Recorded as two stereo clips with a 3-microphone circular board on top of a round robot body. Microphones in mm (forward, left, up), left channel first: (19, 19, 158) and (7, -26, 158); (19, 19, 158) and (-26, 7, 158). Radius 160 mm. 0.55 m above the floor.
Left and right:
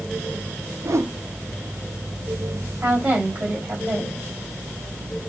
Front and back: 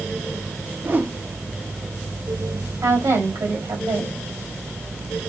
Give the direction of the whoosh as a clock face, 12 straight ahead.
4 o'clock.